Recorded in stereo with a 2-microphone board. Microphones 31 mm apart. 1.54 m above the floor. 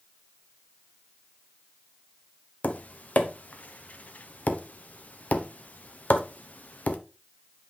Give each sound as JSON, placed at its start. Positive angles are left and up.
{"t": 2.6, "sound": "tapping", "side_deg": 55, "distance_m": 0.8}